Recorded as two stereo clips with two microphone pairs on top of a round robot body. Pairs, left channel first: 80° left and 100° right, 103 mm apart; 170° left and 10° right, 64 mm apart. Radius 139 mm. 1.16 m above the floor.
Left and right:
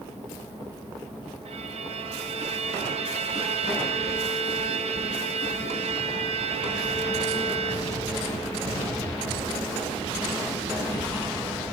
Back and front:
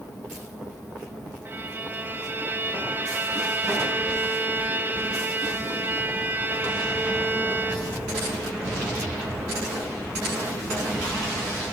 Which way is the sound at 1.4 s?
70° right.